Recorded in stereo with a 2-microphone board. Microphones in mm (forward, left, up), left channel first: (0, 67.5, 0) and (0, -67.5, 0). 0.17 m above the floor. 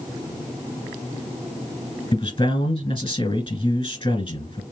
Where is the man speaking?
40° left (ahead or behind), 1.8 m.